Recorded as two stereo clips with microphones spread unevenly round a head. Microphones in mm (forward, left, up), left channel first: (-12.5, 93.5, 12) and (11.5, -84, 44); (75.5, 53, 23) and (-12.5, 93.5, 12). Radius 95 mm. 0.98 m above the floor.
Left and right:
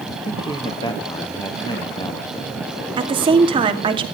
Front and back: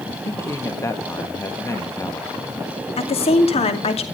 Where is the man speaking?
35° left, 1.6 m.